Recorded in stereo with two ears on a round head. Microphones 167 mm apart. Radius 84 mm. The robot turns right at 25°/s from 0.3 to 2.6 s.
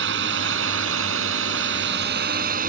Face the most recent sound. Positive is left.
turn(degrees=-45)